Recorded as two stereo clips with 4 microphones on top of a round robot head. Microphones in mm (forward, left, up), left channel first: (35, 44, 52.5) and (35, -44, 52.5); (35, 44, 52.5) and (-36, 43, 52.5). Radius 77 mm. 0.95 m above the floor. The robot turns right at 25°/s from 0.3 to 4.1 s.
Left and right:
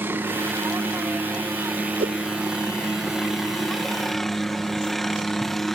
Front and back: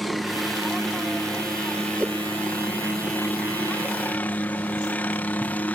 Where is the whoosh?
100° right; by 2.2 s 95° right.